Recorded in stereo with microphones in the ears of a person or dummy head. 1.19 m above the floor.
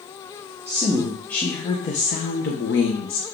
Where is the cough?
No cough in this recording.